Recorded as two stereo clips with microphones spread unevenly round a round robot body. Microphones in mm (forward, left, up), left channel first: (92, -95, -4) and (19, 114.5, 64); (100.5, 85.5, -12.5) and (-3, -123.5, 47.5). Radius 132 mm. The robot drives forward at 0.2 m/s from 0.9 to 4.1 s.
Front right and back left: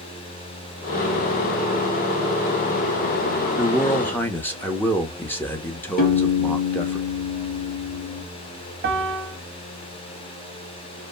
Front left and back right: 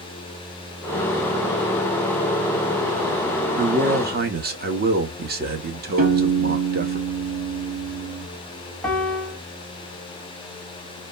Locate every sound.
3.6 s a man speaking: 80° right, 0.9 m; by 7.0 s 95° right, 0.9 m
6.0 s a piano: 65° right, 1.7 m
8.8 s a piano: 105° left, 1.1 m